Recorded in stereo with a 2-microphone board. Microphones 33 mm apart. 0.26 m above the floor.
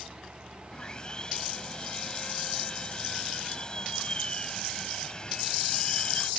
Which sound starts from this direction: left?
Sawing, at 0.7 s.